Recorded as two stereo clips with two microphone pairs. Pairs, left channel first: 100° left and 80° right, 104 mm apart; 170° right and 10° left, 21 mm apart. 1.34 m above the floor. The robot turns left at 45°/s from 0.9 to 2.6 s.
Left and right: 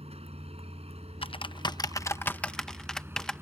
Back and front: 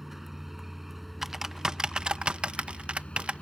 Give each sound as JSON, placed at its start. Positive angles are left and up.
{"t": 0.0, "sound": "a vehicle", "azimuth_deg": -70}
{"t": 1.2, "sound": "typing on a keyboard", "azimuth_deg": 80}